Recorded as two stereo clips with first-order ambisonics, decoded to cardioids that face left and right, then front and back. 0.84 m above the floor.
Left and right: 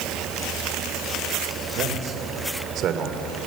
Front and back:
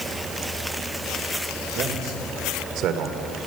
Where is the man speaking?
135° right, 3 m; by 3.3 s 140° right, 2 m.